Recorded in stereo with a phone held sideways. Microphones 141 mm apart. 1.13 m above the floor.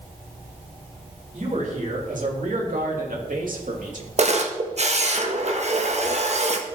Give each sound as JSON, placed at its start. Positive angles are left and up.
{"t": 1.3, "sound": "a man speaking", "side_deg": -55, "distance_m": 3.0}
{"t": 4.2, "sound": "a camera shutter", "side_deg": -50, "distance_m": 1.0}